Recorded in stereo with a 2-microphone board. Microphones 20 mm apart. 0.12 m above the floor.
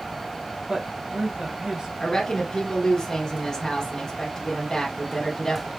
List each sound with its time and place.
0.7 s a woman speaking: 35° right (ahead or behind), 1.6 m
2.0 s a woman speaking: 25° left (ahead or behind), 1.3 m